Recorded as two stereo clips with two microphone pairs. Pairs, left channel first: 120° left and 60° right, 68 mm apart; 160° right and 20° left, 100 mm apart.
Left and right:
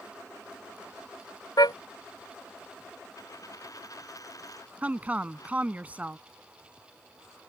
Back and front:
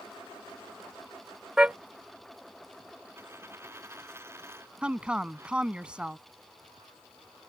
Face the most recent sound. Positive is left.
turn(degrees=-40)